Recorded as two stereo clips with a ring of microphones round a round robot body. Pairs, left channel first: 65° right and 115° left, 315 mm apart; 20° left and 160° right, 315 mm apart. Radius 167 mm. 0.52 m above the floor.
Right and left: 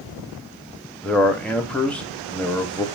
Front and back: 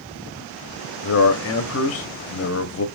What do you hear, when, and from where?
1.0 s a man speaking: 20° left, 0.9 m